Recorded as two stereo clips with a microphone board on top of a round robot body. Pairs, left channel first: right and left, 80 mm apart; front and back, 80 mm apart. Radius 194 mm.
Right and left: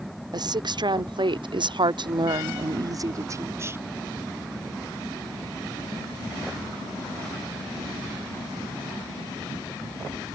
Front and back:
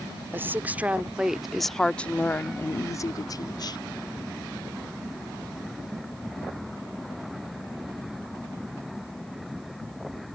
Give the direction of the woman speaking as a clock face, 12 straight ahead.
8 o'clock.